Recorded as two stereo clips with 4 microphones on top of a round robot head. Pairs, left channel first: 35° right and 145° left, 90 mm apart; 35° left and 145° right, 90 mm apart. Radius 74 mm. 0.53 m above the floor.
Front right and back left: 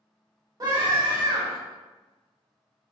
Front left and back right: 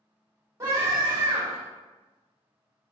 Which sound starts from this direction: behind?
A scream, at 0.6 s.